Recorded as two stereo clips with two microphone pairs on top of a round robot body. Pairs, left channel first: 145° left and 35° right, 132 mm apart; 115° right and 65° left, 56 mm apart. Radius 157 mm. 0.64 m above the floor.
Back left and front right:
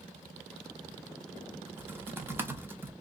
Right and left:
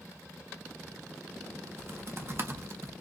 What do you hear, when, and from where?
1.7 s typing on a keyboard: 35° left, 1.1 m